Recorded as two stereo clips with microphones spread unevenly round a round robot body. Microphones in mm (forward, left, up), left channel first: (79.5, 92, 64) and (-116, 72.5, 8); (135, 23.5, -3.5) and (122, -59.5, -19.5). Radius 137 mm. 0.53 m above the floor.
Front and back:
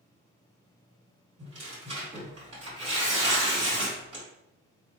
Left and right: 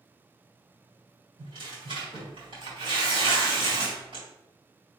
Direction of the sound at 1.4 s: 115° right.